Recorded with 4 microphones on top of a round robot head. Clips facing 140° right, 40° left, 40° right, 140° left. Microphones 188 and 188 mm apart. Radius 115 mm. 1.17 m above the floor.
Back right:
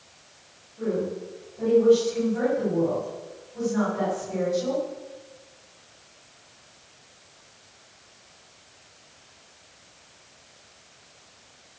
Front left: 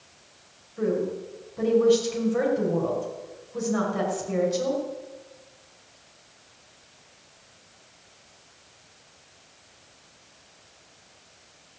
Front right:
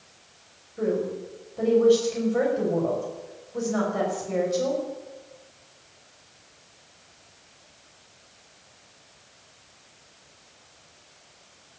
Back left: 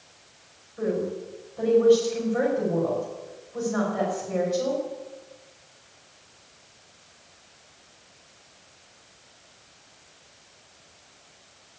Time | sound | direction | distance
0.8 | a woman speaking | 30° left | 5.5 m